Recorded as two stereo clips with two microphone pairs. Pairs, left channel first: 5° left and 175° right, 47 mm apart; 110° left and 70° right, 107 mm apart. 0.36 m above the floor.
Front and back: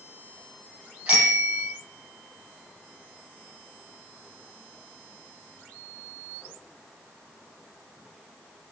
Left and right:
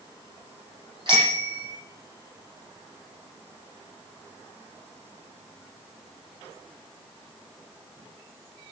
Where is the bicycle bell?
110° right, 9.5 m.